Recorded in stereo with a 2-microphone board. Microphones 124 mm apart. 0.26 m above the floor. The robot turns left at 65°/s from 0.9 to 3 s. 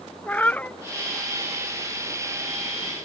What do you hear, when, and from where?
0.3 s a cat meowing: 10° left (ahead or behind)